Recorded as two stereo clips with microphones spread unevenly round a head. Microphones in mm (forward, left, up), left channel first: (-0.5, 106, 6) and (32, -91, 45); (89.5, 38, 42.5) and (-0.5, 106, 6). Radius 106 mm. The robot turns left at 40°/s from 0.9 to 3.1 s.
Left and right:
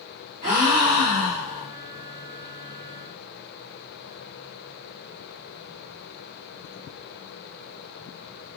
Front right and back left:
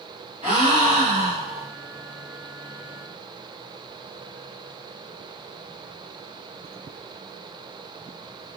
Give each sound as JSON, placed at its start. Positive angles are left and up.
{"t": 0.4, "sound": "a gasp", "azimuth_deg": -130, "distance_m": 1.5}